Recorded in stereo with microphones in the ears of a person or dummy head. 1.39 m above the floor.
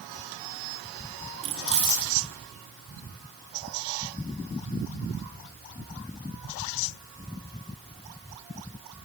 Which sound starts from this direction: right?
Keys jangling, at 1.4 s.